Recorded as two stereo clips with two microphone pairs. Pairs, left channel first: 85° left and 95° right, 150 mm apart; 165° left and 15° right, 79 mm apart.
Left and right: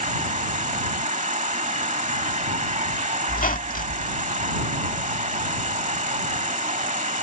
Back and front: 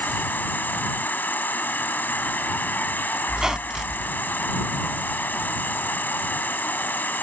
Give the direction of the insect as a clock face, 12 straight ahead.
4 o'clock.